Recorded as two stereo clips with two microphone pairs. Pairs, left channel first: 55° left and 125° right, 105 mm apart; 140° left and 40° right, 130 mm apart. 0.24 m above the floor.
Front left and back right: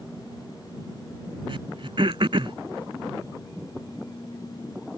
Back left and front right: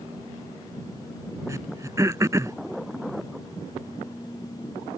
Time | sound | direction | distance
1.5 | throat clearing | 105° right | ?